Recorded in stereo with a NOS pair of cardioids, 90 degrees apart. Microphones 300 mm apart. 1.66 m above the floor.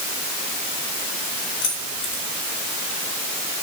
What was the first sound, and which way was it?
Keys jangling, 70° left.